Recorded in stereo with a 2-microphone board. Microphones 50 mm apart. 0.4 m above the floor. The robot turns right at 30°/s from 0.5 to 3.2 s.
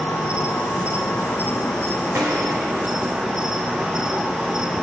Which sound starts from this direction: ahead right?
A gunshot, at 2.1 s.